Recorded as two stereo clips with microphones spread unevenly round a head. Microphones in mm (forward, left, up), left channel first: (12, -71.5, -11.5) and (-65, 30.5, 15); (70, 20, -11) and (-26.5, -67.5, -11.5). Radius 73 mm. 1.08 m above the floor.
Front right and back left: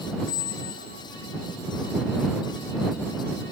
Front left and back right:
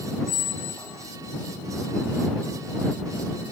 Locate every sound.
0.3 s a squeak: 30° right